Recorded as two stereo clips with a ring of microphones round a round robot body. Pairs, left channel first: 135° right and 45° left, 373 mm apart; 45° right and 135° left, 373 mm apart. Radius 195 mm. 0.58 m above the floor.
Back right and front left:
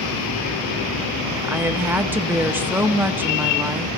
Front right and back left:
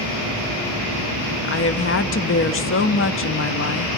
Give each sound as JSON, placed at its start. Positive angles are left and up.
{"t": 1.4, "sound": "a woman speaking", "azimuth_deg": -35, "distance_m": 0.9}